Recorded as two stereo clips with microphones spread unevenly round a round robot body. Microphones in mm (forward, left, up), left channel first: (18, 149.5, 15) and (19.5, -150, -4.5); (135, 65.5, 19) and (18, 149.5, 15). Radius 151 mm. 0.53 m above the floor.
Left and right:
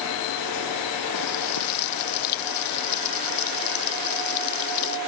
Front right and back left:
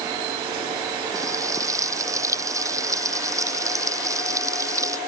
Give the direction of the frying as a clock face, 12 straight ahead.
9 o'clock.